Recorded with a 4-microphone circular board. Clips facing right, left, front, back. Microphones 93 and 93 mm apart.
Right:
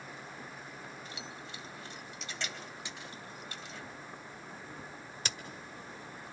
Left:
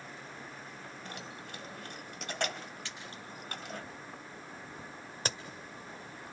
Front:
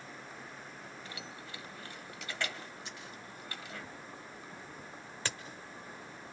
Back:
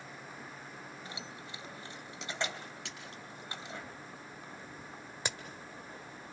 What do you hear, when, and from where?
1.1 s keys jangling: 115° left, 1.6 m
2.9 s a splash: 165° right, 5 m
5.2 s a crack: 115° left, 1.7 m